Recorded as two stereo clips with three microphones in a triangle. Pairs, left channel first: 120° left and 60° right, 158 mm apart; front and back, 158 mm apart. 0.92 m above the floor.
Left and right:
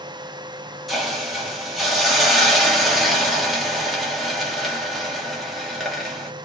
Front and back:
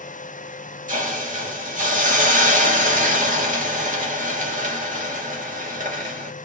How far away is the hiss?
About 2 m.